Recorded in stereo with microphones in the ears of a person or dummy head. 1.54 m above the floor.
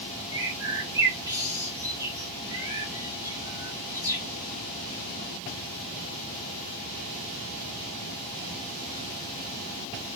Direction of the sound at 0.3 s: 20° right (ahead or behind).